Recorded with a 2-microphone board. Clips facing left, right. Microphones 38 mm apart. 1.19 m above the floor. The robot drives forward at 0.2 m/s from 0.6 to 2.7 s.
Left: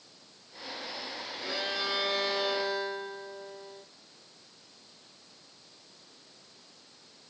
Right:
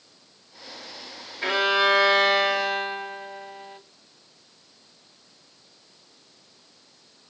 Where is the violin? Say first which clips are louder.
Right 13 dB; 75° right (ahead or behind), 2.5 m; by 3.8 s 70° right (ahead or behind), 2.5 m.